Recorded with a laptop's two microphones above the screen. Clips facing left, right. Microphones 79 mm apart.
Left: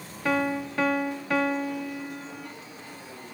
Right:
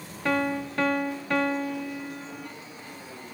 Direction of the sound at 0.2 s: 5° left (ahead or behind).